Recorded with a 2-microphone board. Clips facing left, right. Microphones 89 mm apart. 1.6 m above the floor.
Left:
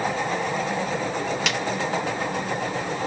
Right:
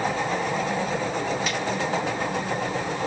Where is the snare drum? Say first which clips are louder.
Left 1 dB; 75° left (ahead or behind), 0.5 m.